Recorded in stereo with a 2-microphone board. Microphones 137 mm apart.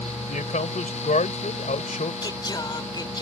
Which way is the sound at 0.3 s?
70° left (ahead or behind).